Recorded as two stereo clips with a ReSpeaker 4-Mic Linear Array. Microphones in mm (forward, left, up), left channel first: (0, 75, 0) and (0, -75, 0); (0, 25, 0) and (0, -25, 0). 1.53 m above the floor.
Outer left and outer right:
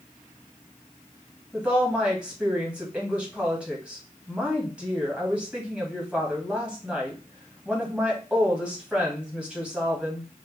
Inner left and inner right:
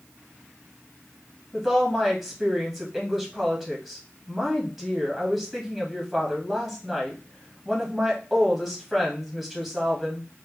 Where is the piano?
No piano in this recording.